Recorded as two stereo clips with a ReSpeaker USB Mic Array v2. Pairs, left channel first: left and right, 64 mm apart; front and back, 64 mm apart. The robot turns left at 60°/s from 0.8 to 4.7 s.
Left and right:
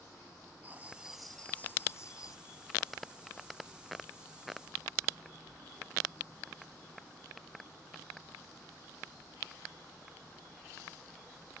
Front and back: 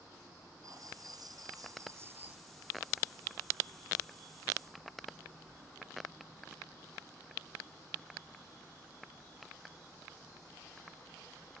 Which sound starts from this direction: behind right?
Writing, at 0.6 s.